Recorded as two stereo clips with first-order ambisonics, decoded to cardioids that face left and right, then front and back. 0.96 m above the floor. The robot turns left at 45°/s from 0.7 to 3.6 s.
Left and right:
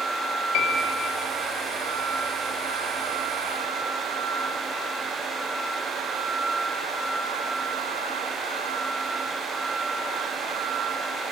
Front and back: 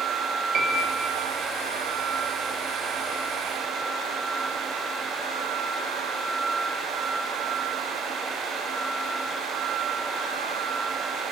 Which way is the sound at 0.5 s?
115° left.